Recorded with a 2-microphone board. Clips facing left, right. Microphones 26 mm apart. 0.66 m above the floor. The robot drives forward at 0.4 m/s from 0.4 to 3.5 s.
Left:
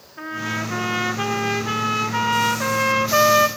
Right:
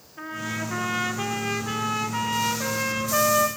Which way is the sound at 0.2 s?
20° left (ahead or behind).